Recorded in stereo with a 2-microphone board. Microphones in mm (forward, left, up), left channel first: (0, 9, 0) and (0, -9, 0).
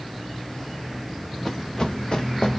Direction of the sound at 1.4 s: 20° left (ahead or behind).